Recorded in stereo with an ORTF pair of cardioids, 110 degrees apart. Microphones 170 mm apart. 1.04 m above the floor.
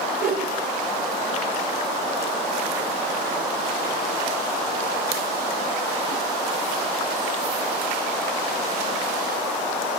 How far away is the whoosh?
About 2.5 m.